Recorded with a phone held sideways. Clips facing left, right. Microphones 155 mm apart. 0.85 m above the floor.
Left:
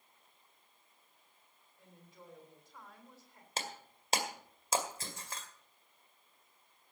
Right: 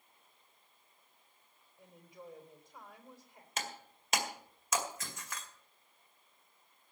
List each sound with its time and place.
1.8 s a woman speaking: 15° right (ahead or behind), 3.5 m
3.6 s breaking glass: 30° left (ahead or behind), 2.0 m